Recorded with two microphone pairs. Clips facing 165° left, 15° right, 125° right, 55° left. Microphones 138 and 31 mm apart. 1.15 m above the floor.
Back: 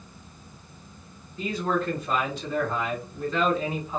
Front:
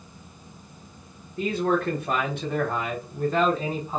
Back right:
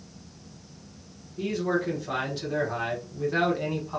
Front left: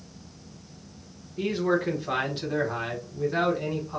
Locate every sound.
1.4 s a man speaking: 10° left, 1.3 m; by 4.0 s 65° right, 1.3 m